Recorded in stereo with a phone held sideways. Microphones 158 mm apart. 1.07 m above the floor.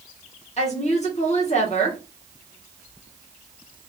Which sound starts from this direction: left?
A woman speaking, at 0.6 s.